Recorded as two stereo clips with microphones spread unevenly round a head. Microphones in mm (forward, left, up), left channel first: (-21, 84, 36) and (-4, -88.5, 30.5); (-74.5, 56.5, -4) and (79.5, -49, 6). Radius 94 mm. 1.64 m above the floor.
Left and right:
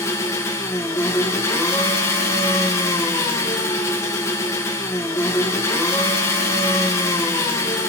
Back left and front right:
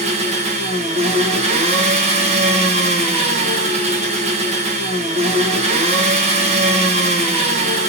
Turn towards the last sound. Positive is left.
turn(degrees=20)